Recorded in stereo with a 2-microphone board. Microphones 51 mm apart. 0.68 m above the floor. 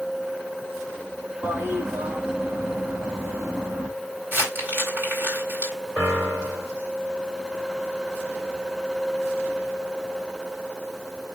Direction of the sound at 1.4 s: 50° right (ahead or behind).